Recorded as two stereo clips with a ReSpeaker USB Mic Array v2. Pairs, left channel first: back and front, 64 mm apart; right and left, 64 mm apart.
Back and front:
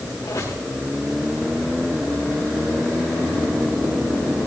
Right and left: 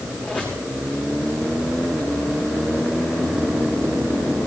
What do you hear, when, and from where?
0.2 s a squeak: 155° right, 3.5 m